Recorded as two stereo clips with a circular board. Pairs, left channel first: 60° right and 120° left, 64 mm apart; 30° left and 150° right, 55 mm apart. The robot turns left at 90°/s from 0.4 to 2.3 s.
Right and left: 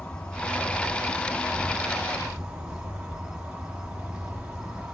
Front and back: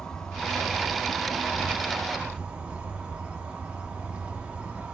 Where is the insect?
20° right, 1.0 m; by 5.0 s 170° left, 1.0 m.